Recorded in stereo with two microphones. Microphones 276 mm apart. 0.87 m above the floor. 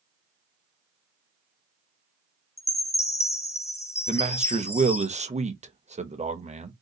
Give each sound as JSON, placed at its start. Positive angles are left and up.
{"t": 2.6, "sound": "a chime", "side_deg": 25, "distance_m": 0.6}
{"t": 4.1, "sound": "a man speaking", "side_deg": -25, "distance_m": 0.7}